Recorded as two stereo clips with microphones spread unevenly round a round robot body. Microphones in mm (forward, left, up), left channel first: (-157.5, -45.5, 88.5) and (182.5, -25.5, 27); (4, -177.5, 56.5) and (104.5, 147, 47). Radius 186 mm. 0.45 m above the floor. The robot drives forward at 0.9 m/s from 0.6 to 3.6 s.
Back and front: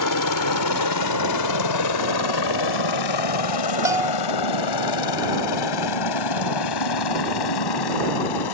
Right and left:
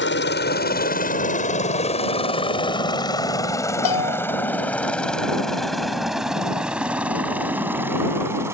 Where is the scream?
No scream in this recording.